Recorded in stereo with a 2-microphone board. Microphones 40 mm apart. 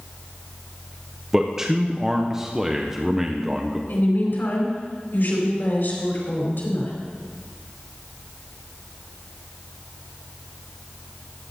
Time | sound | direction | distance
1.3 | a man speaking | 15° right (ahead or behind) | 0.8 m
3.9 | a woman speaking | 65° left (ahead or behind) | 4.5 m